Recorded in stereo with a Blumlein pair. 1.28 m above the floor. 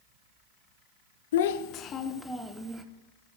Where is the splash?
I don't hear a splash.